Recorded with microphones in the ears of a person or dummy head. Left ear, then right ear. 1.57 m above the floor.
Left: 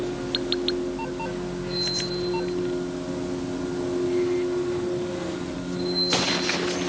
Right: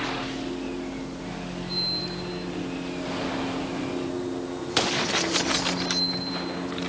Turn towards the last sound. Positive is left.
turn(degrees=10)  # may be behind; listen again after turning